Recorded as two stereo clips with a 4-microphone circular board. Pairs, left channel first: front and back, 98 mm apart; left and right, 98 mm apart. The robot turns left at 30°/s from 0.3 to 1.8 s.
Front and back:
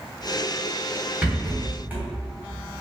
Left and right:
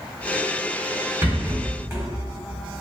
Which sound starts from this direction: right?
A rattle, at 1.2 s.